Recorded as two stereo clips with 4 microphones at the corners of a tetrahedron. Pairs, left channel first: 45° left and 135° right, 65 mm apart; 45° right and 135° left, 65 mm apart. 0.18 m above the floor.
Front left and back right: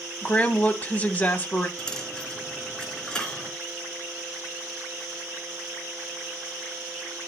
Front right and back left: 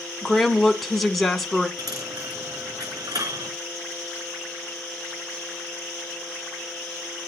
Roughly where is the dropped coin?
Behind left.